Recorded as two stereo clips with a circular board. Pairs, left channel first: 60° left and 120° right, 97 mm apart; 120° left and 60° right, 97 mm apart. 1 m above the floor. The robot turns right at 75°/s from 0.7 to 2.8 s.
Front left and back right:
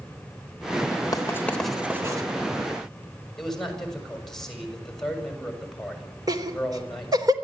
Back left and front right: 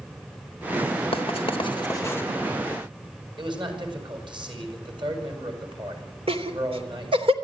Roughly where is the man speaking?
Ahead right.